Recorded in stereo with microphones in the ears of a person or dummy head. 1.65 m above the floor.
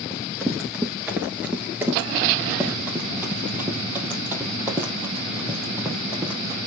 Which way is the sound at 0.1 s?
5° right (ahead or behind).